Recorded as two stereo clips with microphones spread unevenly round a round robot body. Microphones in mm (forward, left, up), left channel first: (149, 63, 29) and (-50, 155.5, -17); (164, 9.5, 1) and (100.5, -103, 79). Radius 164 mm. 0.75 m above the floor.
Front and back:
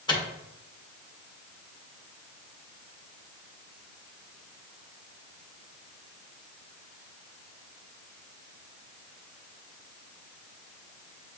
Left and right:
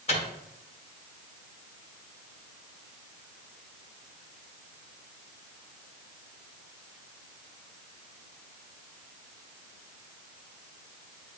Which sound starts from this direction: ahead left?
A microwave, at 0.1 s.